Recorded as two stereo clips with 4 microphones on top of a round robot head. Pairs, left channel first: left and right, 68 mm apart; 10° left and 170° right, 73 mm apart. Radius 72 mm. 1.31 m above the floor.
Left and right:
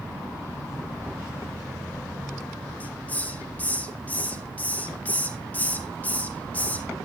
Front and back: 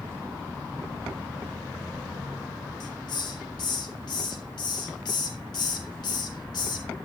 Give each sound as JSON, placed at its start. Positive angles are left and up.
{"t": 2.8, "sound": "a hiss", "azimuth_deg": 25, "distance_m": 3.0}